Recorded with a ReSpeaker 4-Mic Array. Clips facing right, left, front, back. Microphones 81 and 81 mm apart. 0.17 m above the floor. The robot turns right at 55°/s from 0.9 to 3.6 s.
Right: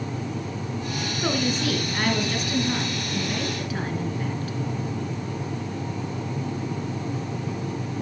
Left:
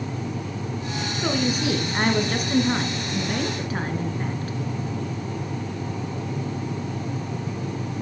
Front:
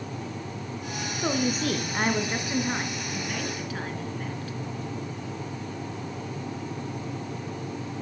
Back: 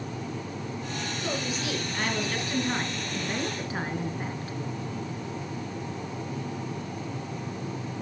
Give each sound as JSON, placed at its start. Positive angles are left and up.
{"t": 1.2, "sound": "a woman speaking", "azimuth_deg": 0, "distance_m": 1.6}